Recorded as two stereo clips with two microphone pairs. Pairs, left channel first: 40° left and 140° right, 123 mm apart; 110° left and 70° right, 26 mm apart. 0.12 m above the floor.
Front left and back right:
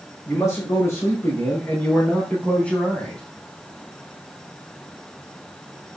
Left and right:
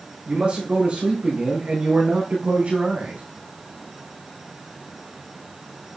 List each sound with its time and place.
0.3 s a man speaking: 25° right, 5.5 m; by 3.2 s 45° right, 4.5 m